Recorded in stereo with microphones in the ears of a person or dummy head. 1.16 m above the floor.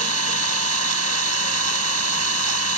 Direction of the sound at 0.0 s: 80° right.